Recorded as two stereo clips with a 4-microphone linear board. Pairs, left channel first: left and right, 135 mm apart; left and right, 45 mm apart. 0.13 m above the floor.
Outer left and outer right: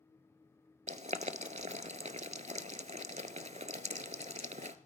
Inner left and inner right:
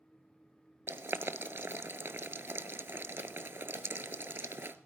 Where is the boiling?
60° right (ahead or behind), 0.6 m.